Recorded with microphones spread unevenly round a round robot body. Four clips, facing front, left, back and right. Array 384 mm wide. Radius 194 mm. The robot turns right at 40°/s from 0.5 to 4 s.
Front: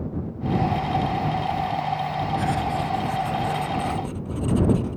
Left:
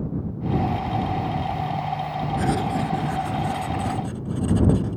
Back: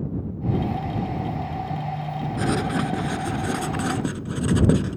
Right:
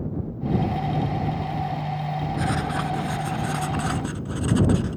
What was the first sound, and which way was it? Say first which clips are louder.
Writing: left 4 dB, back 5 dB; 145° left.